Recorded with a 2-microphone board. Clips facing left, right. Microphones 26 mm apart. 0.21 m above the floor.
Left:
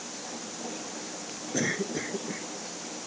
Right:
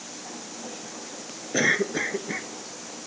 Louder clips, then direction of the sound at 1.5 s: Right 7 dB; 35° right (ahead or behind).